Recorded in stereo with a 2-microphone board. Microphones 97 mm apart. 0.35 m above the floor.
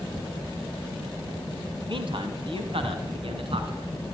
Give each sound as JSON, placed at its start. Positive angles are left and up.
{"t": 1.9, "sound": "a man speaking", "side_deg": -60, "distance_m": 2.5}